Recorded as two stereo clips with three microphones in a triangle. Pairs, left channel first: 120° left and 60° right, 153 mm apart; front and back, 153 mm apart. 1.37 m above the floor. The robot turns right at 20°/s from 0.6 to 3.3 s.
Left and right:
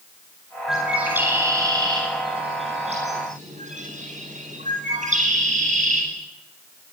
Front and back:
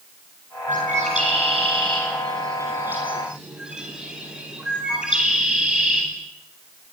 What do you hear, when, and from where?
0.7 s a bird: 145° right, 9.5 m; by 6.0 s 95° right, 9.5 m